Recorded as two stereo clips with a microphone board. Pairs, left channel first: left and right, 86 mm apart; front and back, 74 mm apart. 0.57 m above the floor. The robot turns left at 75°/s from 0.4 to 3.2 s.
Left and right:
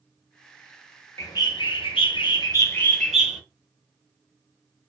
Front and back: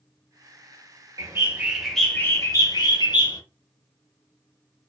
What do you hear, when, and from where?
1.2 s a bird: 145° left, 0.6 m; by 3.4 s 5° right, 0.6 m